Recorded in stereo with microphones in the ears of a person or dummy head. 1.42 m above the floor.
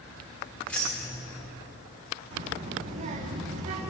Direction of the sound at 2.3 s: 45° right (ahead or behind).